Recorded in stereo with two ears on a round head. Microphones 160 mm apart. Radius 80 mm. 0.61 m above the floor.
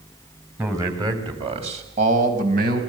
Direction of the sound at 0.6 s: 15° right (ahead or behind).